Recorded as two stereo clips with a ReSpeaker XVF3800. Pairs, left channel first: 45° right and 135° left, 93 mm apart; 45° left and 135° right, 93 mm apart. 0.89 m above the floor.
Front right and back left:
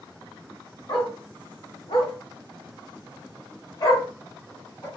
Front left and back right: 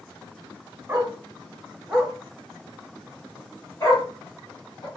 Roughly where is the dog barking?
Right.